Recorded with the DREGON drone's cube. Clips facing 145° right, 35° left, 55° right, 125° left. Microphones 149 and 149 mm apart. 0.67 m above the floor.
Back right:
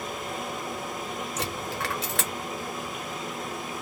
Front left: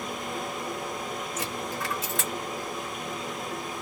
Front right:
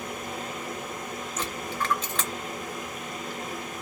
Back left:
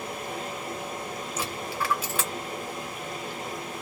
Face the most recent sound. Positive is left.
turn(degrees=-155)